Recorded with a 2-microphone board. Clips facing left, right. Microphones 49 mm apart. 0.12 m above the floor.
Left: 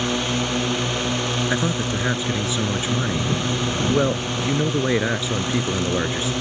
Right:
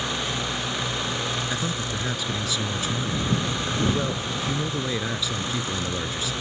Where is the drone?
65° left (ahead or behind).